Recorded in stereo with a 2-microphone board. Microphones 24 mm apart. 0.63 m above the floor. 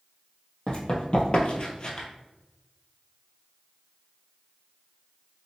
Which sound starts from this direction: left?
Running footsteps, at 0.7 s.